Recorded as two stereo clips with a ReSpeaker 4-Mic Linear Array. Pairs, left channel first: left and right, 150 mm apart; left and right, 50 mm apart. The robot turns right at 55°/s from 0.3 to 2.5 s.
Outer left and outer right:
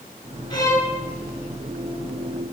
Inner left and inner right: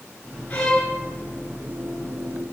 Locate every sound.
0.5 s a violin: 30° left (ahead or behind), 1.7 m; by 0.9 s 10° left (ahead or behind), 1.7 m